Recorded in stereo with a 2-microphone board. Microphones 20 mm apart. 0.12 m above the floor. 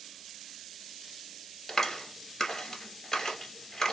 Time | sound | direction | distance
1.7 | a clap | 25° left (ahead or behind) | 1.9 m